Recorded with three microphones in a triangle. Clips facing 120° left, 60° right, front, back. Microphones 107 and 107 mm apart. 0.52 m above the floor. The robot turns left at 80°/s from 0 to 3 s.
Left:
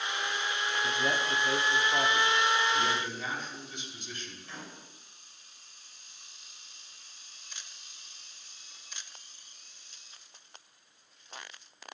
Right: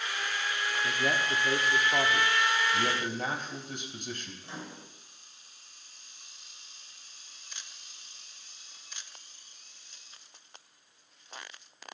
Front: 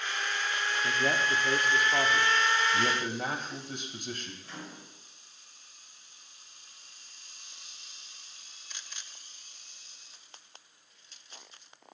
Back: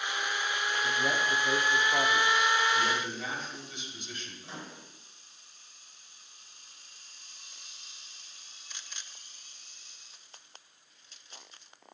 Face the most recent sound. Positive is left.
turn(degrees=-120)